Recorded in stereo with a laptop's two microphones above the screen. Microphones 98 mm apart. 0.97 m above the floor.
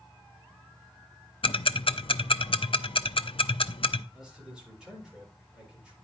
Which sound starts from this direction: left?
Ticking, at 1.4 s.